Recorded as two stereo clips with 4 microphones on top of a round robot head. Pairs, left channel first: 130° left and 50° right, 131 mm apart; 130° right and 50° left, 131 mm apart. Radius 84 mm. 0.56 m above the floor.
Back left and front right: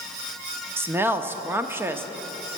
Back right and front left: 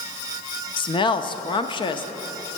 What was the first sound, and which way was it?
A woman speaking, 115° right.